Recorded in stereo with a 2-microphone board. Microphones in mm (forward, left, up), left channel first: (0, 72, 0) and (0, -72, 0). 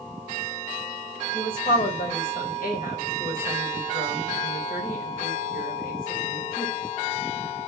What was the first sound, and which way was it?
A woman speaking, 80° left.